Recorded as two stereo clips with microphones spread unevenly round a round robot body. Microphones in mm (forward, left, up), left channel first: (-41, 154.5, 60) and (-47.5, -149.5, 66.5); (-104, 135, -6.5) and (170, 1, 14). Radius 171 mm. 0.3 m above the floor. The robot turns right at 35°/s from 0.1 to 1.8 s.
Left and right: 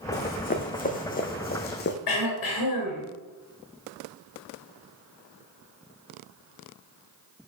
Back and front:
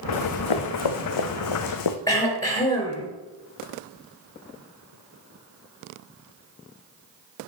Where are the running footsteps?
145° left, 1.6 m; by 2.0 s 140° left, 1.2 m.